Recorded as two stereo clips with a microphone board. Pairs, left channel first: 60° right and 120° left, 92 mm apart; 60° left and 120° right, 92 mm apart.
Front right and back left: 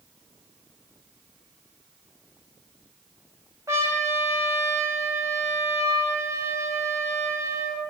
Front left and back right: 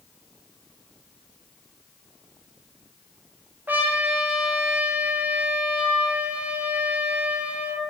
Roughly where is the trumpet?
Behind.